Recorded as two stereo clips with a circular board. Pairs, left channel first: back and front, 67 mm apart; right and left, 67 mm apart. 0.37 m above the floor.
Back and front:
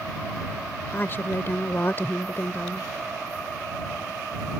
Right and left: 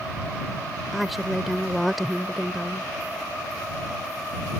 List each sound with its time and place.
0.9 s a woman speaking: straight behind